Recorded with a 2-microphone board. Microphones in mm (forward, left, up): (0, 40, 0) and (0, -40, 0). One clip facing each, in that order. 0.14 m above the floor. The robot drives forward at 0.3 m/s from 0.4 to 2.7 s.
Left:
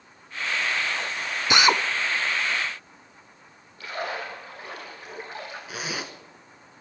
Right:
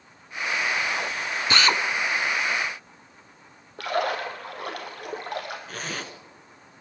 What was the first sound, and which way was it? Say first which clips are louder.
A drill: left 2 dB; 15° left (ahead or behind).